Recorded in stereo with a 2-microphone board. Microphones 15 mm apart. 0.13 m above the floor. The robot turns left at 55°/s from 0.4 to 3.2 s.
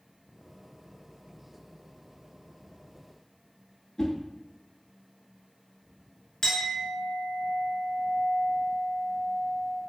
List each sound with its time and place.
4.0 s a whoosh: 40° left (ahead or behind), 0.7 m
6.4 s a clink: 40° left (ahead or behind), 1.0 m